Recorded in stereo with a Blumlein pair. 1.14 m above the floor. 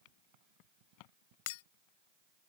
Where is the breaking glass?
50° left.